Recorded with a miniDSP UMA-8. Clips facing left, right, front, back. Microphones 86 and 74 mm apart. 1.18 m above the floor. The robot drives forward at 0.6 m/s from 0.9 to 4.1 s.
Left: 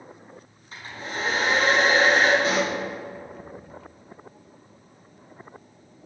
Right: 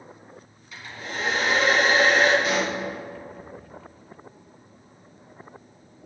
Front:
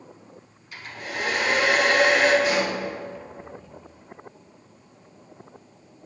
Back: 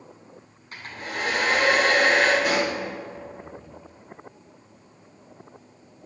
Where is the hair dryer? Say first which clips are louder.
Left 1 dB, even; 140° left, 4.5 m; by 2.3 s 145° left, 5 m.